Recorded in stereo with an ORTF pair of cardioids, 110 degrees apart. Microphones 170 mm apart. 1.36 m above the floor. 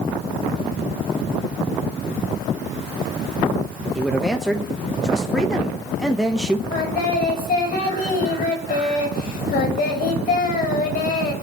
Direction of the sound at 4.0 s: 5° right.